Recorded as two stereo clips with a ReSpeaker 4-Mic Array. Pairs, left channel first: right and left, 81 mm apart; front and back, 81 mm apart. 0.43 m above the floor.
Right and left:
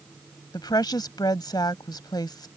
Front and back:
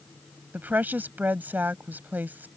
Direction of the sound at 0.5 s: 115° right.